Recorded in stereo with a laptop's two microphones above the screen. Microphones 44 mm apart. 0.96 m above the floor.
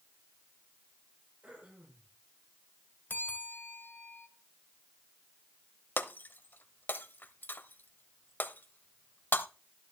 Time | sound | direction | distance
1.4 | throat clearing | 35° right (ahead or behind) | 5.5 m
3.1 | a bell | 50° left (ahead or behind) | 2.5 m
6.0 | breaking glass | 50° left (ahead or behind) | 0.9 m